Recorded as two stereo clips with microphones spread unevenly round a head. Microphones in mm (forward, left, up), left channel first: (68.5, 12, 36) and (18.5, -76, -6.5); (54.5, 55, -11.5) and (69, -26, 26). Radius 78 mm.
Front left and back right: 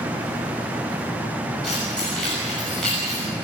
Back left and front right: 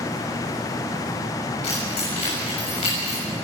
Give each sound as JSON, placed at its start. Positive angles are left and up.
{"t": 1.6, "sound": "keys jangling", "azimuth_deg": 145, "distance_m": 6.5}